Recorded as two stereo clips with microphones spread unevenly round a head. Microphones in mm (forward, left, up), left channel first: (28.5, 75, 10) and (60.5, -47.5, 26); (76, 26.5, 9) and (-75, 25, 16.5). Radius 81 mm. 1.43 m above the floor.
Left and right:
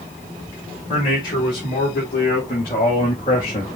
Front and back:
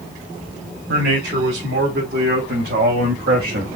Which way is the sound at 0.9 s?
165° left.